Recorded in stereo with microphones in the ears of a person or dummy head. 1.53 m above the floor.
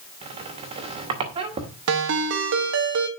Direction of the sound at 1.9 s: 75° right (ahead or behind).